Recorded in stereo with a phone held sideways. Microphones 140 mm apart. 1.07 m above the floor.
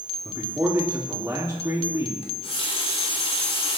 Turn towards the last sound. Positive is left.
turn(degrees=45)  # may be behind; listen again after turning